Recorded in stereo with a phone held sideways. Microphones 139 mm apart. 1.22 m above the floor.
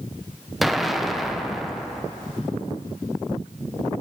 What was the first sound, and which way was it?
An explosion, centre (ahead or behind).